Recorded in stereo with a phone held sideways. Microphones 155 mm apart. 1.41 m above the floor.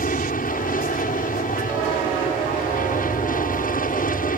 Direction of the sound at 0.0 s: 70° left (ahead or behind).